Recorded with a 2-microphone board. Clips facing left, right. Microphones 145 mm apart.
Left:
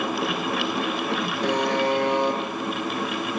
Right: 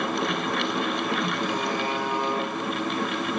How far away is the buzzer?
About 6 m.